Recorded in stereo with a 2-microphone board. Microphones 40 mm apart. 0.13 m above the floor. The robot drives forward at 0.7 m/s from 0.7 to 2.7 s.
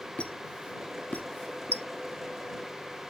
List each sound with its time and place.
0.2 s a squeak: 35° left (ahead or behind), 0.9 m; by 1.9 s 45° left (ahead or behind), 0.7 m